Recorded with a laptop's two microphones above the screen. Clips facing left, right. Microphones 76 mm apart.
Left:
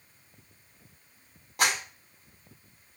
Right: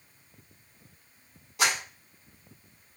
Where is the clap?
55° left (ahead or behind), 6 m.